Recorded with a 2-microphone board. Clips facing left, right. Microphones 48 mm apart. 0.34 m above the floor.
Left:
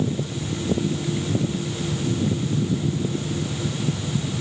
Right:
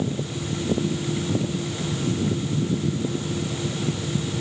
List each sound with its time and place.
Only background noise.